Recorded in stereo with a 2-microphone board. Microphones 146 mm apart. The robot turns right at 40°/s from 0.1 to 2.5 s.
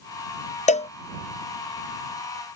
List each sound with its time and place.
0.7 s a cowbell: 55° left (ahead or behind); by 0.9 s 45° left (ahead or behind)